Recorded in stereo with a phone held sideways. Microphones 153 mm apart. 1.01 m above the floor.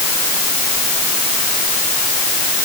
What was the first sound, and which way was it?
Only background noise.